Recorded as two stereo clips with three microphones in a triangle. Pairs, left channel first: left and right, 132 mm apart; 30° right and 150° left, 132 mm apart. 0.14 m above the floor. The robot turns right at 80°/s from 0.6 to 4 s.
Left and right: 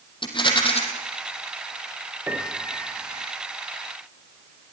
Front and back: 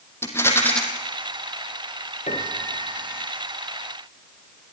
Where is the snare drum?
I don't hear a snare drum.